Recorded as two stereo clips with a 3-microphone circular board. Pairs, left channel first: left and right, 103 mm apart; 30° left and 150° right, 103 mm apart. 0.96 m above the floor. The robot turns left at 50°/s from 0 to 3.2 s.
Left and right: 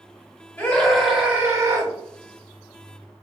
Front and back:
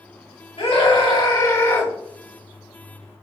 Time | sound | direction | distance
0.6 | a scream | 20° left | 2 m